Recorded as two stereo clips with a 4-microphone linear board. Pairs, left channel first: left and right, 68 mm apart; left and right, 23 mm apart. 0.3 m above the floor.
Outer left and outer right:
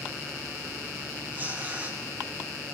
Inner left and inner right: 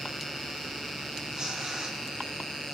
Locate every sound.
1.3 s tearing paper: 30° right (ahead or behind), 2.5 m